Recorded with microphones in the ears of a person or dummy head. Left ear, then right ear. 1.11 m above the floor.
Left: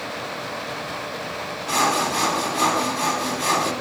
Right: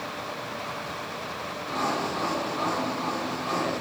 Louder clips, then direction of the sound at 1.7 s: Left 8 dB; 65° left (ahead or behind).